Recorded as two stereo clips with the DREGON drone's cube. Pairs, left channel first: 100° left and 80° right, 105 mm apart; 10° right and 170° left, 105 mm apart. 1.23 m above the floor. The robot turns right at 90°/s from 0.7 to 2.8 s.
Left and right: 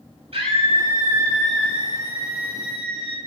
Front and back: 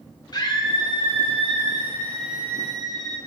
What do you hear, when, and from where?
0.3 s a scream: 60° right, 7 m; by 3.2 s 130° left, 7 m